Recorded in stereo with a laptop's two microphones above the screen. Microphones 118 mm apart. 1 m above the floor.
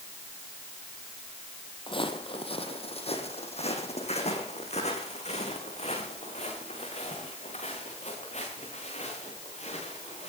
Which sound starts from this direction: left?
Footsteps, at 1.9 s.